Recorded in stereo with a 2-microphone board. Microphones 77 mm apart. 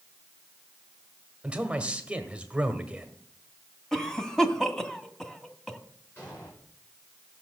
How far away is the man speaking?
About 1.8 m.